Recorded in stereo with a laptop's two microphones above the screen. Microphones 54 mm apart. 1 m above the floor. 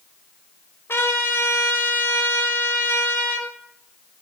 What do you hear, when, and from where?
0.9 s a trumpet: 45° left (ahead or behind), 4 m